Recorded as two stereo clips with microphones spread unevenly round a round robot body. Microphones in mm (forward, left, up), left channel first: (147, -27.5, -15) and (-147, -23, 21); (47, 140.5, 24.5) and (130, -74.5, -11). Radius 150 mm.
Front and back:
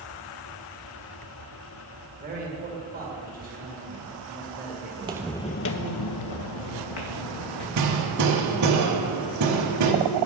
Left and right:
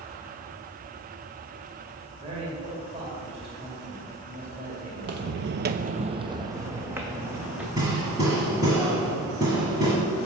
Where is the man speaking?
120° right, 1.8 m.